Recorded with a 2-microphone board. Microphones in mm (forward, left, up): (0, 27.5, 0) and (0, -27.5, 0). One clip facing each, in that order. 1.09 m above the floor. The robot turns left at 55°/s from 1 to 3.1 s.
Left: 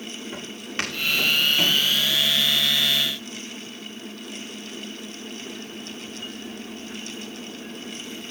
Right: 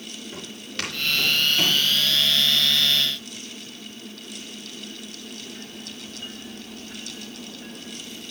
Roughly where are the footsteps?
Left.